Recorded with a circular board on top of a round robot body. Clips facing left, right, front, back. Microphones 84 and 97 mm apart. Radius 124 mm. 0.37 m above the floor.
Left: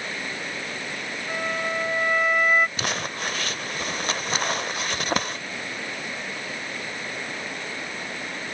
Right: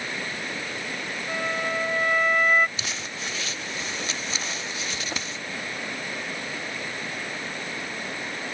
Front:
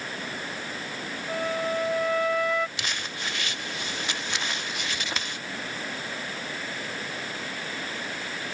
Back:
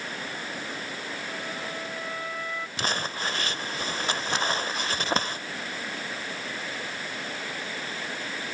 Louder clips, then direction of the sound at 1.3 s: Even, front 12 dB; 5° left.